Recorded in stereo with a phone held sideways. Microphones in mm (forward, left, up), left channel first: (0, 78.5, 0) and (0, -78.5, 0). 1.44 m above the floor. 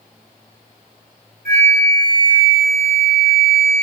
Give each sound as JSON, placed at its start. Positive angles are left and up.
{"t": 1.4, "sound": "a flute", "side_deg": -60, "distance_m": 1.3}